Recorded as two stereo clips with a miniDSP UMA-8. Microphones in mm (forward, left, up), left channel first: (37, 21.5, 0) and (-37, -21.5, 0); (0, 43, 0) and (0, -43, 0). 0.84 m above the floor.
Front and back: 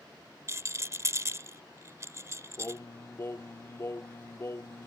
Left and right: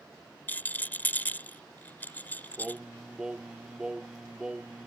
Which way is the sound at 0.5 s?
160° left.